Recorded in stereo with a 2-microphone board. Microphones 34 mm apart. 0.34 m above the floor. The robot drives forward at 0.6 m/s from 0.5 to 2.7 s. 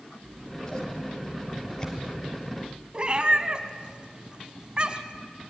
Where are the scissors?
25° left (ahead or behind), 3 m; by 2.8 s 15° left (ahead or behind), 4.5 m.